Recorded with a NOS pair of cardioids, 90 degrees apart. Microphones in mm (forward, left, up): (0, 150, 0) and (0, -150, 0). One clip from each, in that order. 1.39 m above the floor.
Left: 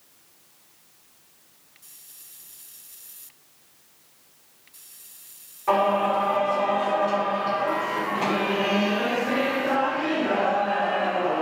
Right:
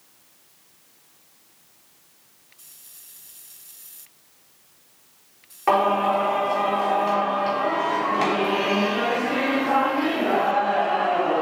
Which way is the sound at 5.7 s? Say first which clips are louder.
Right 2 dB; 70° right.